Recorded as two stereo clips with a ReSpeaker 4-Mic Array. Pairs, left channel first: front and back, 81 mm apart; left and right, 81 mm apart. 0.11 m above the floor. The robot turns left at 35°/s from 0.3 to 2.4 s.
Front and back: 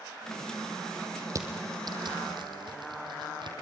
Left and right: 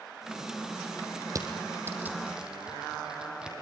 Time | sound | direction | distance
1.3 | crushing | 130° right | 3.5 m